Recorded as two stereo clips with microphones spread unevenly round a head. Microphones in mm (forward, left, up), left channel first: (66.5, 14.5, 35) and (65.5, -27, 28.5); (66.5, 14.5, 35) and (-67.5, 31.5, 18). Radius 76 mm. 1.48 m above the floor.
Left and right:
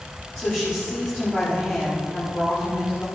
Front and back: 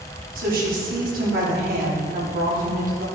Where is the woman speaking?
170° left, 4 m.